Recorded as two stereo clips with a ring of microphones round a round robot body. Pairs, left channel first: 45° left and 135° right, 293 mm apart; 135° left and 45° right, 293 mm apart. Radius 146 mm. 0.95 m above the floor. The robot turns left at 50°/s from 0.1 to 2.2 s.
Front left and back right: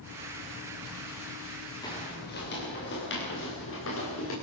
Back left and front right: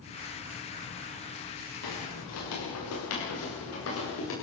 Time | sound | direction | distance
1.8 | footsteps | 120° left | 8 m